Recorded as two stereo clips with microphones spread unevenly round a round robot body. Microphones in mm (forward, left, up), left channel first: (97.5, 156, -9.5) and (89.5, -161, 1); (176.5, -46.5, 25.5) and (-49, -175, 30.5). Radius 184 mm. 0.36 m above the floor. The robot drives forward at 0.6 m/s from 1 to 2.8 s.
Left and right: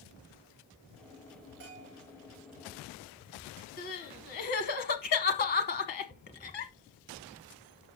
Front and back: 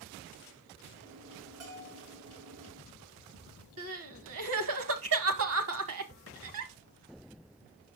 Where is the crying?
155° left, 0.7 m.